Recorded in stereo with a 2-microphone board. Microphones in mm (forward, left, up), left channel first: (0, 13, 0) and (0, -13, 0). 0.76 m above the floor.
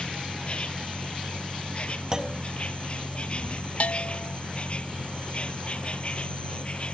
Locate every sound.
0.0 s an insect: 40° left (ahead or behind)
2.1 s a clunk: 30° right (ahead or behind)
3.8 s a bell: 55° left (ahead or behind)